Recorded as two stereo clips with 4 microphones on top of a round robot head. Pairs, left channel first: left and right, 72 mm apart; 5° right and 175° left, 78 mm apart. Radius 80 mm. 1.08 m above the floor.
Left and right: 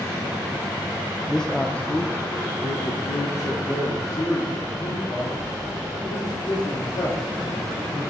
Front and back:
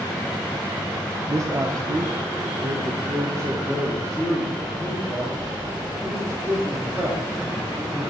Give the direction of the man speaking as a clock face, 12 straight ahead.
6 o'clock.